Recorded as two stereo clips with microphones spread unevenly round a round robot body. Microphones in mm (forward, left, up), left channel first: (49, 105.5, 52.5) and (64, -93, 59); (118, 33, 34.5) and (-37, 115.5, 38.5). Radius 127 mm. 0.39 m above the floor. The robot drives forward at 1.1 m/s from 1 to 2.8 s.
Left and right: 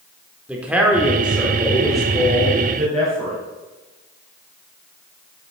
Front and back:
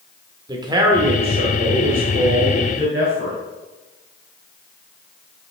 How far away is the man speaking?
About 1.0 m.